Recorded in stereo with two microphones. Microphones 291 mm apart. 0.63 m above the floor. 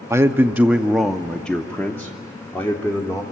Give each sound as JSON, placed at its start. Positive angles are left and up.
{"t": 0.1, "sound": "a man speaking", "side_deg": -10, "distance_m": 0.7}